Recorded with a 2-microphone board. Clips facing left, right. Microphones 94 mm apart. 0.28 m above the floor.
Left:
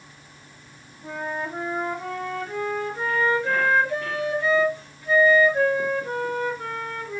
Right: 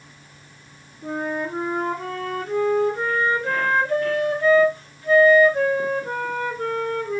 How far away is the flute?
About 2.5 m.